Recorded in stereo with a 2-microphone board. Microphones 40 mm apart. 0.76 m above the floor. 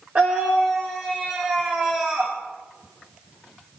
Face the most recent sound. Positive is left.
turn(degrees=-25)  # may be behind; listen again after turning